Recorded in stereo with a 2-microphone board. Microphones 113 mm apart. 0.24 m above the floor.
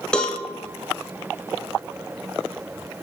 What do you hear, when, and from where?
0.1 s a cowbell: 10° left (ahead or behind), 0.5 m